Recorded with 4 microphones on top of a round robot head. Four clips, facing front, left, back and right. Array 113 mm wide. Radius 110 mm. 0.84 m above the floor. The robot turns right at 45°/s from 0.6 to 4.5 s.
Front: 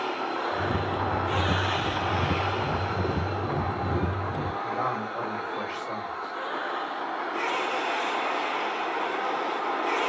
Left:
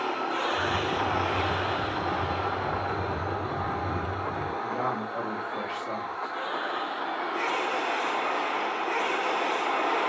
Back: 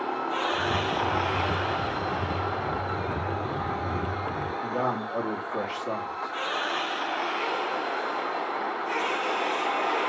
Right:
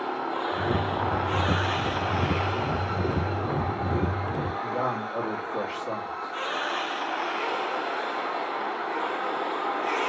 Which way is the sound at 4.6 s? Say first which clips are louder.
Right 1 dB, back 2 dB; 170° right.